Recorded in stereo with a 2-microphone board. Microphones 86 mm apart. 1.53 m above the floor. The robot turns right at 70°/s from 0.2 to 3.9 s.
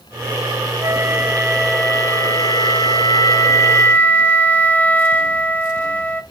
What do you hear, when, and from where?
0.8 s a flute: 55° right, 0.9 m; by 6.2 s 160° left, 0.9 m